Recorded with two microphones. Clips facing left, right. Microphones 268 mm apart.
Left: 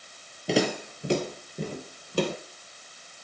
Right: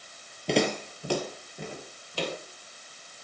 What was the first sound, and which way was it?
Footsteps, centre (ahead or behind).